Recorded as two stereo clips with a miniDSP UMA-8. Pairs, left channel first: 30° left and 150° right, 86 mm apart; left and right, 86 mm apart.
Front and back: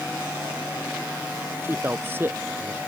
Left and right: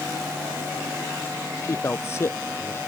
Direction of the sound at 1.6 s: 145° left.